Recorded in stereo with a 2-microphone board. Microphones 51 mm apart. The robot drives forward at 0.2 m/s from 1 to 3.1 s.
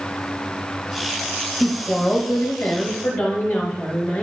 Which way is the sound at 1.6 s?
45° left (ahead or behind).